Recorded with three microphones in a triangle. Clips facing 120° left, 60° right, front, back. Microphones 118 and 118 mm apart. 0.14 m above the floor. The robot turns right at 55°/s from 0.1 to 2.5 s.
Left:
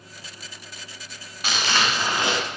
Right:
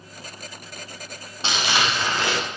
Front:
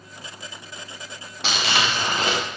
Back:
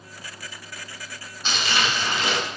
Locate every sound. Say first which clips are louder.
1.4 s crumpling: right 1 dB, front 2 dB; straight ahead, 6 m; by 2.4 s 55° left, 6 m